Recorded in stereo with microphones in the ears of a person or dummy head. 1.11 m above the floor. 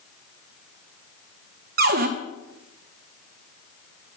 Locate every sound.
1.8 s a cupboard door: 45° right (ahead or behind), 0.7 m